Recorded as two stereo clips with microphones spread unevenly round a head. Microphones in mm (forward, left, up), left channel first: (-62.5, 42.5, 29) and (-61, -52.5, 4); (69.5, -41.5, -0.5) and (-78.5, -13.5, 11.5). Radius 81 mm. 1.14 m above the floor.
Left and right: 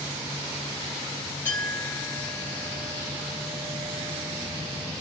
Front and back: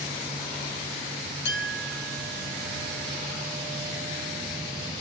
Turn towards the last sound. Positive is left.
turn(degrees=15)